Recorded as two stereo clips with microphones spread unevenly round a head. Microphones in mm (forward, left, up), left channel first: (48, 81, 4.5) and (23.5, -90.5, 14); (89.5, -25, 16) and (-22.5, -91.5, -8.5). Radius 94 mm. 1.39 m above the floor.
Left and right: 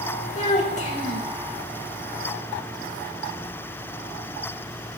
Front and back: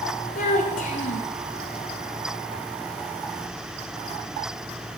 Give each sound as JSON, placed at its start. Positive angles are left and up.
{"t": 0.3, "sound": "a child speaking", "azimuth_deg": 35, "distance_m": 4.5}